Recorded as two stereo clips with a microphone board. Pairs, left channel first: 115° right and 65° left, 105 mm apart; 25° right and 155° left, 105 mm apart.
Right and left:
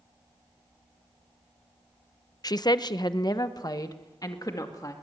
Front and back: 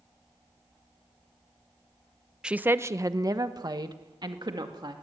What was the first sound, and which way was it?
A woman speaking, 125° right.